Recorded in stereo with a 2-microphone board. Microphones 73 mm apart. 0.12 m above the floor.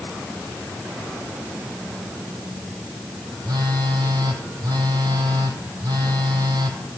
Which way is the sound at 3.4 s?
70° right (ahead or behind).